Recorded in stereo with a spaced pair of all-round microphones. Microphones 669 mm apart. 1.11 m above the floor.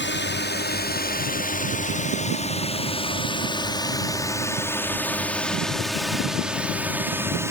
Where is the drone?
15° left (ahead or behind); by 7.5 s 5° right (ahead or behind).